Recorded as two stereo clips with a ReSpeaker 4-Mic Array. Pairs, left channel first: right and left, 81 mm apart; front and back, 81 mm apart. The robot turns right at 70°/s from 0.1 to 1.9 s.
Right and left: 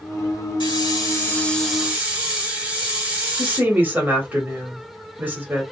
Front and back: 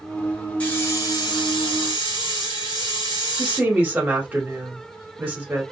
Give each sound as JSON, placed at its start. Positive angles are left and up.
{"t": 0.6, "sound": "a hiss", "azimuth_deg": -75, "distance_m": 1.3}
{"t": 3.4, "sound": "a woman speaking", "azimuth_deg": 130, "distance_m": 1.2}